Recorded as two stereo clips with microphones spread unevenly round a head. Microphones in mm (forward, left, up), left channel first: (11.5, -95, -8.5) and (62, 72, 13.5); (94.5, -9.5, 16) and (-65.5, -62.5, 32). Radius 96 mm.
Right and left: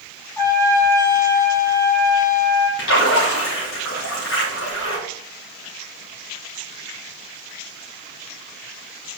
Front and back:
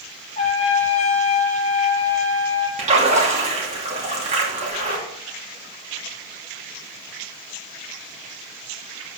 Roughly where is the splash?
Right.